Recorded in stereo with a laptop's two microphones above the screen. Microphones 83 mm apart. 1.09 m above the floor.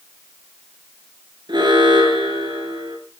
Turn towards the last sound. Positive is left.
turn(degrees=-65)  # may be behind; listen again after turning